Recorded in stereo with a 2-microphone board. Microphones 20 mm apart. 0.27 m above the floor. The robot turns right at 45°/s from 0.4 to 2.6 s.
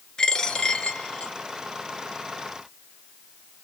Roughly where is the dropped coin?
Ahead left.